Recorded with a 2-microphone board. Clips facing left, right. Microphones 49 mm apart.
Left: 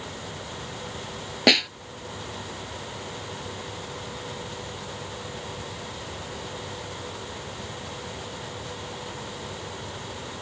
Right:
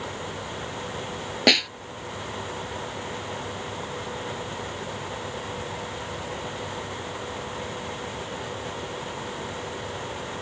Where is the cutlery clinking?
I don't hear cutlery clinking.